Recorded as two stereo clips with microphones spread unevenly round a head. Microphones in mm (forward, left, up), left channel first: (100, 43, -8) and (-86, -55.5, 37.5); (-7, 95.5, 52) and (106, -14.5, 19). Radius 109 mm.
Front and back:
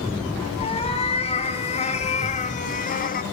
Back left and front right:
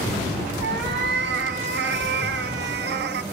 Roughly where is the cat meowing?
Ahead right.